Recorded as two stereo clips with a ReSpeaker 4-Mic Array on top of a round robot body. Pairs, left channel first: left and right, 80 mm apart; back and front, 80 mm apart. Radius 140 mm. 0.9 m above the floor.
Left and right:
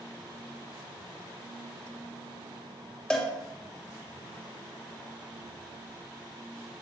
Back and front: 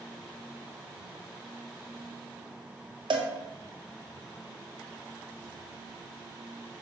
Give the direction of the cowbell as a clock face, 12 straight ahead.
12 o'clock.